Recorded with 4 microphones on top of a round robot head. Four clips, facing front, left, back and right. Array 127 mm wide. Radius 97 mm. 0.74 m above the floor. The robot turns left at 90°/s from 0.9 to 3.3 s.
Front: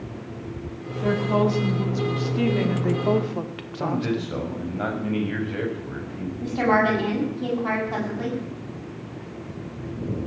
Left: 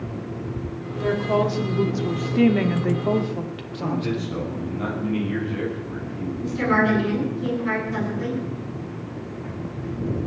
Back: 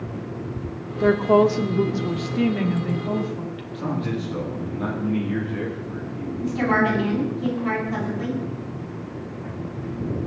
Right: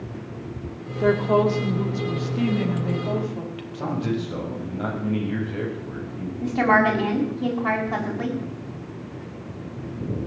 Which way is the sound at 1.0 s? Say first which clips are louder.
Right 3 dB, back 5 dB; 140° right.